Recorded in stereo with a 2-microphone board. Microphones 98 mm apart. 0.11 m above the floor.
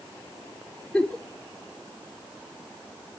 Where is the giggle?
10° left (ahead or behind), 1.1 m.